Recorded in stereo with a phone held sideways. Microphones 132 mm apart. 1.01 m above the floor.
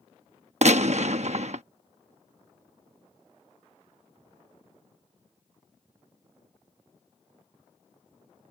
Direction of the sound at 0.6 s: 60° right (ahead or behind).